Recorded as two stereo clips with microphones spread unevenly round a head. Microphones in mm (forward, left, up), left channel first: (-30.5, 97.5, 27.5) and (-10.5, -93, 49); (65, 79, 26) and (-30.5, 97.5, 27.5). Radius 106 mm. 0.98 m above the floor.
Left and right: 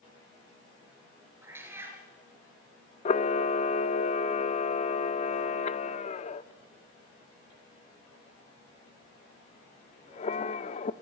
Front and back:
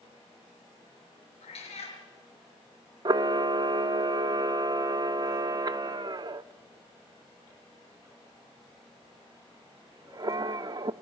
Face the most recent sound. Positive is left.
turn(degrees=150)